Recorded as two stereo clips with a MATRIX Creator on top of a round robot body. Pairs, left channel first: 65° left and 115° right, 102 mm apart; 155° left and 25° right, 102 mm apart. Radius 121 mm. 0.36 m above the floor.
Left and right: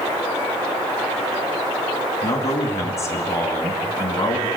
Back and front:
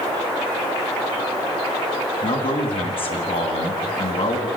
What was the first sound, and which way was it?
A man speaking, 130° left.